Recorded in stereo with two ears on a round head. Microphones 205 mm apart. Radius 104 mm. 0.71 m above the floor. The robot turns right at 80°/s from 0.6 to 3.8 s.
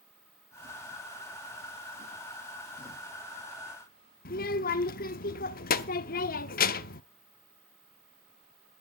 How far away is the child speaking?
About 0.8 m.